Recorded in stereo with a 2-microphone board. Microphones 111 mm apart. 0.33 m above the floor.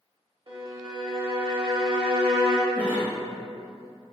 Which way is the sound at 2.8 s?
25° left (ahead or behind).